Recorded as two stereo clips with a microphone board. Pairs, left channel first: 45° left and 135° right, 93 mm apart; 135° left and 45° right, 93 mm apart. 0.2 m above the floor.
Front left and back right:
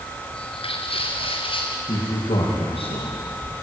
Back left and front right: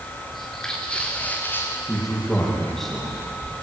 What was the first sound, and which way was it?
Footsteps, 45° left.